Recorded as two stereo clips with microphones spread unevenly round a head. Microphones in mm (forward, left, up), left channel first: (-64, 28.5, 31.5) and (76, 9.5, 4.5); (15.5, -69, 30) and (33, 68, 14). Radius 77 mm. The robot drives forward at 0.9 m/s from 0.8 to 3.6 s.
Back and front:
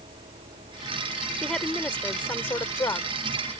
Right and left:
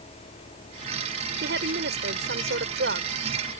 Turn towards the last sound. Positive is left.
turn(degrees=110)